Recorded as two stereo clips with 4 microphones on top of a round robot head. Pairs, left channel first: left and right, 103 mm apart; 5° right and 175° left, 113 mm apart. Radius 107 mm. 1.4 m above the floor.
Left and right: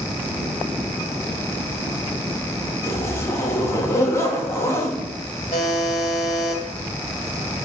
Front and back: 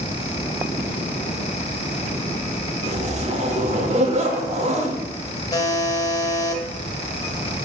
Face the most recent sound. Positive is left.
turn(degrees=50)